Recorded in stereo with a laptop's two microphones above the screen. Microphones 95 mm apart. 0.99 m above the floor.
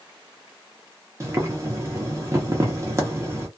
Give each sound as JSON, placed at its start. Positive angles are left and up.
{"t": 1.2, "sound": "boiling", "side_deg": -30, "distance_m": 0.9}